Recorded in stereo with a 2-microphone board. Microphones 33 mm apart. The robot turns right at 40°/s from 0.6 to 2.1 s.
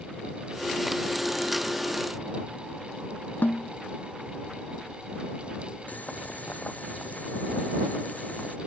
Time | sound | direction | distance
3.4 | a snare drum | 70° left (ahead or behind) | ?
5.9 | boiling | 50° left (ahead or behind) | ?